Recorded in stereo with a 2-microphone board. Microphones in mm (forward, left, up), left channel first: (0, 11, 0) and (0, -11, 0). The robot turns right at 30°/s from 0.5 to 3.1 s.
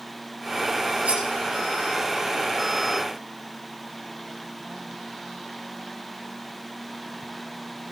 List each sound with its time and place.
1.1 s cutlery clinking: 70° right (ahead or behind), 6.5 m; by 1.2 s 60° right (ahead or behind), 6.5 m